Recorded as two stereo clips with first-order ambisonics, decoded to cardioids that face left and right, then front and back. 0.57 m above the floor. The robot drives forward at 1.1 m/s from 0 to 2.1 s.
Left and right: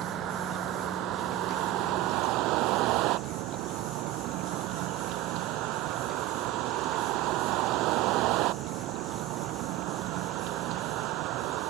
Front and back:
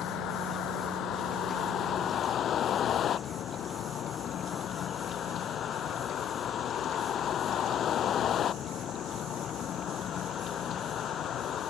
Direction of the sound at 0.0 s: 45° right.